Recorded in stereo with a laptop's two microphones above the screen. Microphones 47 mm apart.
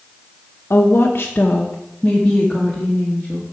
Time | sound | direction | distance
0.7 | a woman speaking | 55° left (ahead or behind) | 0.8 m